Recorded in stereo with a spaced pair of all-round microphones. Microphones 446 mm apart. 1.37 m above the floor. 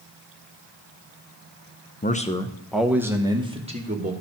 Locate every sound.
2.0 s a man speaking: 20° left (ahead or behind), 0.7 m; by 4.1 s 15° right (ahead or behind), 1.6 m